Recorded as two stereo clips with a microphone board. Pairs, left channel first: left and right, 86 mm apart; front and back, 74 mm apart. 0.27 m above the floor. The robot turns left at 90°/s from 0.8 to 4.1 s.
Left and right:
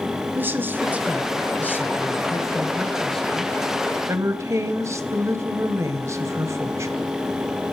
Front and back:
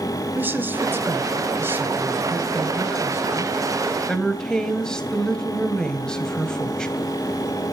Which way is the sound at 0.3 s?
135° right.